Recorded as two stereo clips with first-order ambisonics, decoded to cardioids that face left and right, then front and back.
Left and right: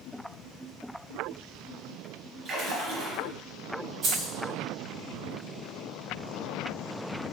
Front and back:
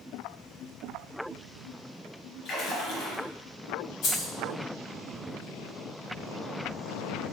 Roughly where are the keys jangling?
Ahead right.